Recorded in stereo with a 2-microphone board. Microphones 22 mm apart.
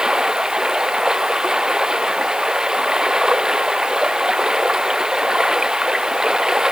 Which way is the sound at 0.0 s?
30° right (ahead or behind).